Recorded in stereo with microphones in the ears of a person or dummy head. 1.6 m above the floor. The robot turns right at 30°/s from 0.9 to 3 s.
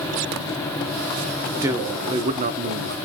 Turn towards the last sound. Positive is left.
turn(degrees=-125)